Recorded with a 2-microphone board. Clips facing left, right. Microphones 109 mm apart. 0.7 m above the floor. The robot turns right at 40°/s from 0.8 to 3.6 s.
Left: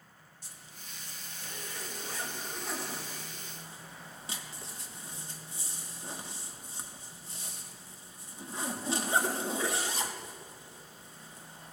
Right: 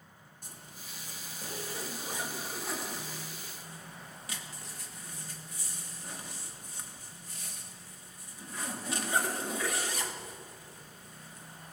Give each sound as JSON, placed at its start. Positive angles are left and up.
{"t": 0.4, "sound": "a zipper", "side_deg": -50, "distance_m": 1.1}